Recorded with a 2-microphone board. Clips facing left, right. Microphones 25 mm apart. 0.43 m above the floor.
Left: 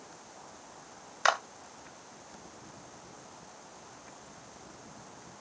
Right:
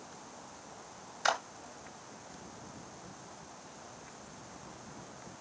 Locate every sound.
1.2 s a clap: 35° left (ahead or behind), 1.7 m